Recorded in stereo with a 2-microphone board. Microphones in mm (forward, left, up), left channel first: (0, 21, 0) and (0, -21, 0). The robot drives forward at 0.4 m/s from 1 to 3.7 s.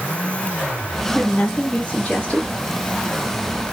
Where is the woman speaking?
35° left (ahead or behind), 1.0 m; by 2.5 s 25° left (ahead or behind), 1.2 m.